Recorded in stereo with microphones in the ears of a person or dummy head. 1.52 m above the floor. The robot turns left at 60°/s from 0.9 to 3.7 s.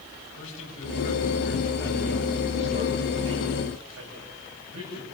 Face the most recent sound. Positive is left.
turn(degrees=-100)